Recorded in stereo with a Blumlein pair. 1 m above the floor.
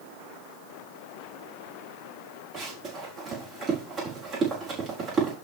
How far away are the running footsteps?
About 4.5 m.